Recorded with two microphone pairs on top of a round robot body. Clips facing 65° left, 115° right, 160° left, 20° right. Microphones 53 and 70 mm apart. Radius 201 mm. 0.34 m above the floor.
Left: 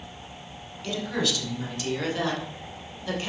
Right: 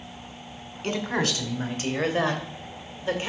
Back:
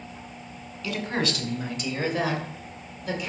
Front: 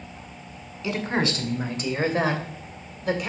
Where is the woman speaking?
80° right, 2.5 m; by 3.3 s 50° right, 3 m.